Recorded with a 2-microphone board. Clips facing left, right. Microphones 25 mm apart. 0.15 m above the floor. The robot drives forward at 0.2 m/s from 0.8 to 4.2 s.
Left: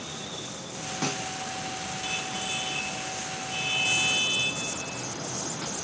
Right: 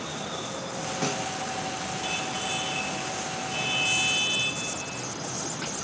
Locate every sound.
1.0 s a snare drum: 15° left (ahead or behind), 0.8 m